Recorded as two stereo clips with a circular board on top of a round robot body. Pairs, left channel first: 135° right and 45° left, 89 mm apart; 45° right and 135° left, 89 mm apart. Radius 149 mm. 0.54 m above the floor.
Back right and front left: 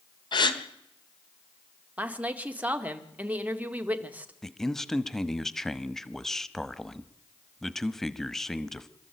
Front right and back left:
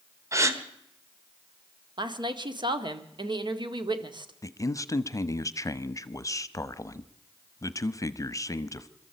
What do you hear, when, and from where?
0.3 s a gasp: 170° right, 1.5 m
2.0 s a woman speaking: 115° left, 2 m
4.4 s a man speaking: 50° right, 1.2 m